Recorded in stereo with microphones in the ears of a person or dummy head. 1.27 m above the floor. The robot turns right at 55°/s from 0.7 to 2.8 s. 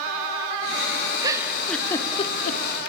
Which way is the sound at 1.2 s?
20° right (ahead or behind).